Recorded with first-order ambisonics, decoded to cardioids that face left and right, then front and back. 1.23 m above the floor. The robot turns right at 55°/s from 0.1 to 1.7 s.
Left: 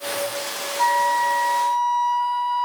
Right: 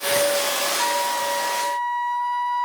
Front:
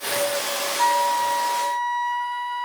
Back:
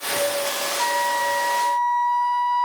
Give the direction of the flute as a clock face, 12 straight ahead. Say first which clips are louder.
Left 4 dB, front 3 dB; 1 o'clock.